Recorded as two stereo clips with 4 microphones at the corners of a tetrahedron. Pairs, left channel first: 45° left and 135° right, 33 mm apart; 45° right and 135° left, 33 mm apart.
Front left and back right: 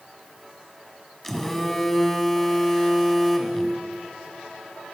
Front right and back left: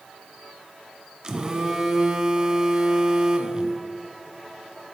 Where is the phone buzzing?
110° left, 1.3 m.